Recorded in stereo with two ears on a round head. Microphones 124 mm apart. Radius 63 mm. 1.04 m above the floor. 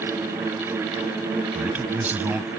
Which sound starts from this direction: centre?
A man speaking, at 1.6 s.